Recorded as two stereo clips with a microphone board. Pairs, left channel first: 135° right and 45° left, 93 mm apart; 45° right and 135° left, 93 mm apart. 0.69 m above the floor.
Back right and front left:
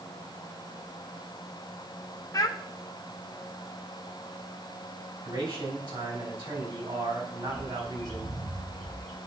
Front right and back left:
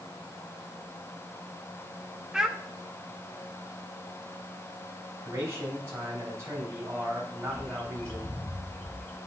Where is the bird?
40° left, 5.5 m.